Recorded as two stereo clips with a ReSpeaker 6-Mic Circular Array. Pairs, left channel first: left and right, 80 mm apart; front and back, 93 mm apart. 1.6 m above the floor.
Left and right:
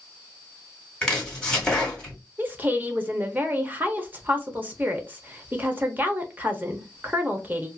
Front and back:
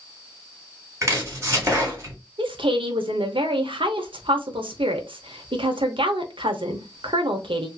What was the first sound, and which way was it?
Chopping, 165° left.